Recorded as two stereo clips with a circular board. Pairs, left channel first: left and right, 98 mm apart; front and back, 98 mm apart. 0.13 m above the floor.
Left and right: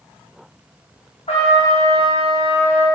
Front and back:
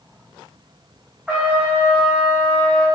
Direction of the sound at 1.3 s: 100° left.